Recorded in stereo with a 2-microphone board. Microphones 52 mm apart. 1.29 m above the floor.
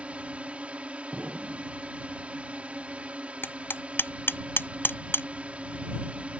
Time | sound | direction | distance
0.0 | a drone | 25° right (ahead or behind) | ?
1.1 | an explosion | 30° right (ahead or behind) | ?
3.4 | hammering | 50° left (ahead or behind) | ?